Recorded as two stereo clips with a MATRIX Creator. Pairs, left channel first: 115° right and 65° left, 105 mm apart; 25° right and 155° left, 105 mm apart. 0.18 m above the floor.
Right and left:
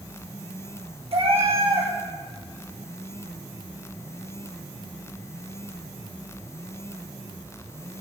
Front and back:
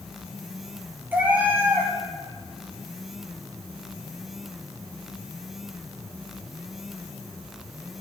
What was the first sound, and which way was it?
A cat meowing, 85° left.